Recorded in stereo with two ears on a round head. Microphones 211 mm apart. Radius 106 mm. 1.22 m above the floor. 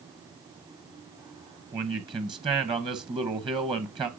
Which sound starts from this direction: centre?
A man speaking, at 1.7 s.